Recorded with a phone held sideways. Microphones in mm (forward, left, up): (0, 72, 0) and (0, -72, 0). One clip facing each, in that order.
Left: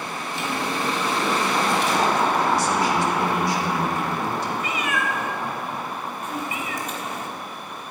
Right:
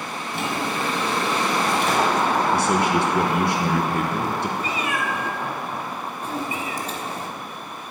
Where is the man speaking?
60° right (ahead or behind), 1.1 m.